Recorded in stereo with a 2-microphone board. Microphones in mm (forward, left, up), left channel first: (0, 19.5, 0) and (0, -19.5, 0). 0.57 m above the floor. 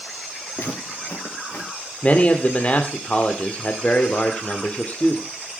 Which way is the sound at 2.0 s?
35° left (ahead or behind).